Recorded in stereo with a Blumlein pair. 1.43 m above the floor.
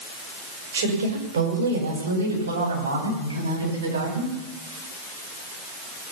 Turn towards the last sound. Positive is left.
turn(degrees=-75)